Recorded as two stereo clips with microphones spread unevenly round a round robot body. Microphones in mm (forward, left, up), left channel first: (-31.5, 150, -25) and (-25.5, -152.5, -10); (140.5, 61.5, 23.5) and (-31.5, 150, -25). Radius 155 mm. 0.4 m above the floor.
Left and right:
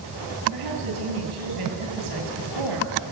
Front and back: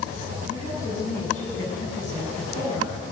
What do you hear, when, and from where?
0.5 s a woman speaking: 105° right, 6.5 m